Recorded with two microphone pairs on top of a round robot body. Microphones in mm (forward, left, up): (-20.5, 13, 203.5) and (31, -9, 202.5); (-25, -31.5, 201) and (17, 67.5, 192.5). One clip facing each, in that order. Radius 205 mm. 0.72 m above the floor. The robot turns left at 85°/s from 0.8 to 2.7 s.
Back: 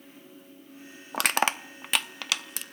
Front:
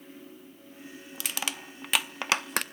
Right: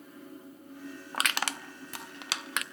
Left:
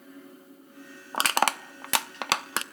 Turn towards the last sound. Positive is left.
turn(degrees=0)